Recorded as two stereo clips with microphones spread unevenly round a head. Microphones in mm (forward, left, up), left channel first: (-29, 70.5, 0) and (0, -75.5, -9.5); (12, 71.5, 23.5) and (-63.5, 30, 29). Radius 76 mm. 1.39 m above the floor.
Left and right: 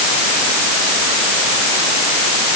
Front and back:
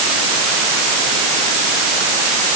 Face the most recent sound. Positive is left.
No sound to turn to.